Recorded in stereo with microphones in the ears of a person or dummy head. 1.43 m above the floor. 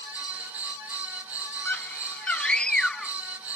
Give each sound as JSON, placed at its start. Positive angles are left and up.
{"t": 1.6, "sound": "a scream", "side_deg": 5}